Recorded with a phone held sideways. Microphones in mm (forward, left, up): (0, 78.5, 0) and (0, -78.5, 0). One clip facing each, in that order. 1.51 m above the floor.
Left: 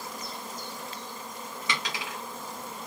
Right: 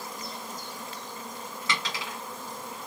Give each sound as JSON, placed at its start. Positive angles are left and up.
{"t": 1.7, "sound": "a dropped coin", "side_deg": 15, "distance_m": 1.6}